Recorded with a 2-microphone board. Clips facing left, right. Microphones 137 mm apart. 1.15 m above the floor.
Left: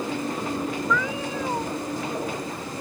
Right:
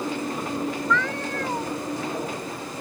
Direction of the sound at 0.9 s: 10° left (ahead or behind).